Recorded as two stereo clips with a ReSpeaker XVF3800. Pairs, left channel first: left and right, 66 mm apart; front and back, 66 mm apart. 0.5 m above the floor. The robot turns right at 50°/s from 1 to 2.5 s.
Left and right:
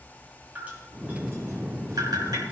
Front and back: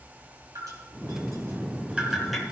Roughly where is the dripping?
Behind right.